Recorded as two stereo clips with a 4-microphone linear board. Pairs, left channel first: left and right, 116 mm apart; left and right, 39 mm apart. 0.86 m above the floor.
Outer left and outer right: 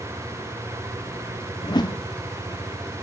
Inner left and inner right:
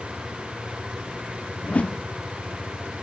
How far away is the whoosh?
About 0.7 m.